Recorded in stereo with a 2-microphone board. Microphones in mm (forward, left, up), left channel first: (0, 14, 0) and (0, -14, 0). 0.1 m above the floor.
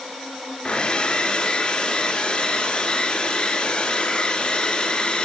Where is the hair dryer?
30° left (ahead or behind), 1.5 m.